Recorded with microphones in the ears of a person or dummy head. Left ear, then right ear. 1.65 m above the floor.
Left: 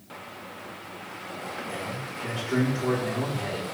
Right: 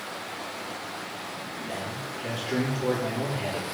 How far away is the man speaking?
About 4 m.